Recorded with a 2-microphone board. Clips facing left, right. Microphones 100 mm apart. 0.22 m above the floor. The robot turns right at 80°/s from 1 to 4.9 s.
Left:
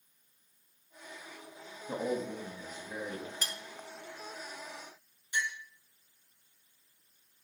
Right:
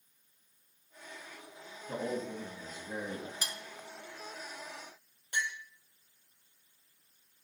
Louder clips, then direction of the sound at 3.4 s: Left 1 dB; 15° right (ahead or behind).